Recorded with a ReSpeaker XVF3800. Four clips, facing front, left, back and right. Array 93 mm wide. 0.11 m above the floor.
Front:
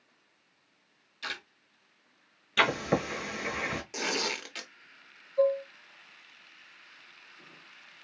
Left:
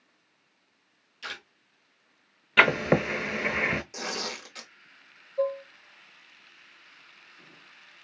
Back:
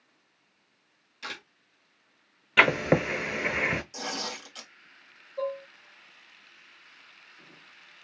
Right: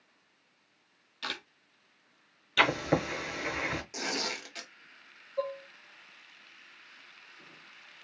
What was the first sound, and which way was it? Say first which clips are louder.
A camera shutter: even, front 1 dB; 105° right.